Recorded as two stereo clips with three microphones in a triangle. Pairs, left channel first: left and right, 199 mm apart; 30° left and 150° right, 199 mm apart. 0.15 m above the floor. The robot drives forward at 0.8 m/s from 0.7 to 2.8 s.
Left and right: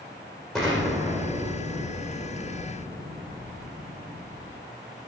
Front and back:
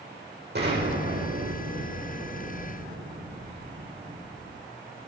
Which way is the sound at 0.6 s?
Straight behind.